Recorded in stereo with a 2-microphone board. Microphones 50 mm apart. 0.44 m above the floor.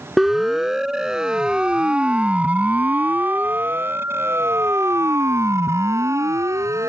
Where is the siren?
5° right (ahead or behind); by 6.9 s 80° right.